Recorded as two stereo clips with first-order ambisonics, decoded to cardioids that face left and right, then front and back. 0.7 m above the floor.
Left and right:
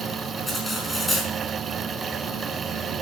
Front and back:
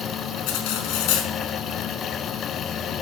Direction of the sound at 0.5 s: 10° left.